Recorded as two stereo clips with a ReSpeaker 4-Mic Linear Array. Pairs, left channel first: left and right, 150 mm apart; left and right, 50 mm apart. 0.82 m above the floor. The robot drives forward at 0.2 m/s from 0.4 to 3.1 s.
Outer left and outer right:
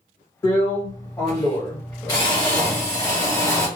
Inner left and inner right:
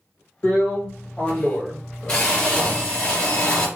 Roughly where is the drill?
Left.